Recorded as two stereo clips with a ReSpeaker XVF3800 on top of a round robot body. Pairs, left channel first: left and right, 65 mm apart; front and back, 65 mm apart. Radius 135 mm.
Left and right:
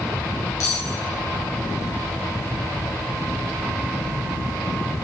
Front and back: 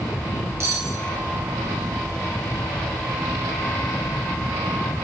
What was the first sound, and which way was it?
Cutlery clinking, 130° left.